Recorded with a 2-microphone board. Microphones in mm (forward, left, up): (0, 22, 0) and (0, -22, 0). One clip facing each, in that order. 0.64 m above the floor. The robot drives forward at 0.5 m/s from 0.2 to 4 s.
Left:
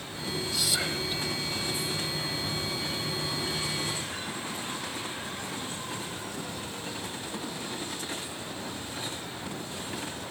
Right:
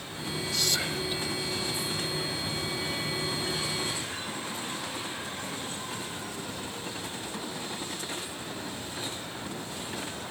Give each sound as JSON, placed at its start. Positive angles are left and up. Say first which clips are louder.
{"t": 0.5, "sound": "whispering", "louder": "right 1 dB", "side_deg": 5}